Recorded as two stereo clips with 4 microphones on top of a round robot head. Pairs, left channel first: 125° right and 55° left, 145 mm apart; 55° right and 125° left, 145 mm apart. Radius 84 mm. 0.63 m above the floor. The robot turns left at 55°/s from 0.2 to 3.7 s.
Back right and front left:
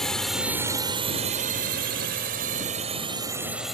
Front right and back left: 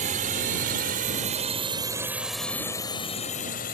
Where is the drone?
145° left; by 3.8 s 35° right.